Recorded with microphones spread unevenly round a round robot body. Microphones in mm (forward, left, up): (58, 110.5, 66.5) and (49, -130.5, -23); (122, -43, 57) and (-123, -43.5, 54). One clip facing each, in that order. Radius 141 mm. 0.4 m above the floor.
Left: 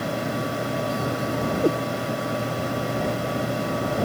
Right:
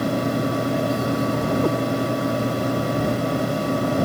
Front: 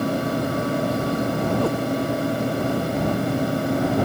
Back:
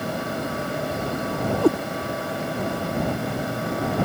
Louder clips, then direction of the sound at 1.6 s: Left 3 dB, back 9 dB; 165° left.